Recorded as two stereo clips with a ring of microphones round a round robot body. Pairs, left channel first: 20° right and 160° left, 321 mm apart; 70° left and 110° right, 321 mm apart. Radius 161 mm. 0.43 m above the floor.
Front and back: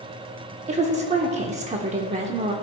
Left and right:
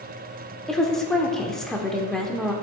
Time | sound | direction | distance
0.7 | a woman speaking | 150° left | 0.7 m